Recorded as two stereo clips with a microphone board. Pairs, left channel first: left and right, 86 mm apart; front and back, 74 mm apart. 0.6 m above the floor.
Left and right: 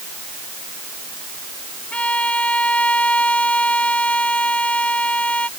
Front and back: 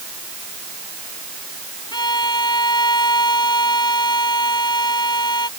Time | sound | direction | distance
1.9 | a violin | 15° left | ?